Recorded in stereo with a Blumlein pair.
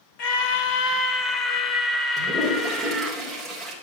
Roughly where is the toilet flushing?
Ahead.